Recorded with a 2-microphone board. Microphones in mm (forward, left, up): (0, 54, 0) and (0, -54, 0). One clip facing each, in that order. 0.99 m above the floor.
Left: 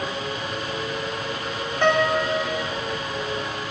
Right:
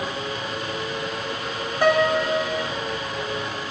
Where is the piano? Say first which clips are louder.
Right 1 dB; 10° right (ahead or behind), 0.9 m.